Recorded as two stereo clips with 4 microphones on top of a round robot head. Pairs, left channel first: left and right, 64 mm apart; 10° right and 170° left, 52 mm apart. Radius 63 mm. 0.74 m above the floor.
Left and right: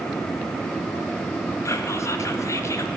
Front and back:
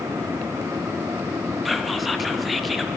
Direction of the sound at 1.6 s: 80° left.